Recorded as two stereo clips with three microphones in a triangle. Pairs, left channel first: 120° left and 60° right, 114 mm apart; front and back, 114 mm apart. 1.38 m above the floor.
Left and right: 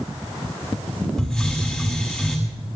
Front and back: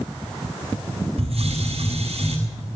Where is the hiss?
155° right, 6.5 m.